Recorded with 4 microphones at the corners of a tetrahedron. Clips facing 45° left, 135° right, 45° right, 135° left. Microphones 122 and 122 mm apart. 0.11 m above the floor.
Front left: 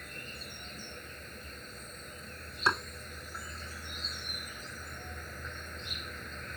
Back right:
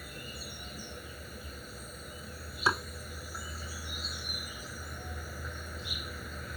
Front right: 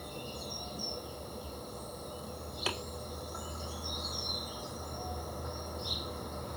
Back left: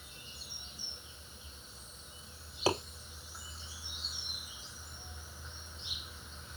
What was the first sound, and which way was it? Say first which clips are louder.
An insect: back right 2 dB, front right 14 dB; 55° right.